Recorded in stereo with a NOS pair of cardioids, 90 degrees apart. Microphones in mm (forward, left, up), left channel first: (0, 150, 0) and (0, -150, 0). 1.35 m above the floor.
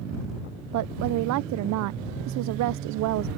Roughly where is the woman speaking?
Right.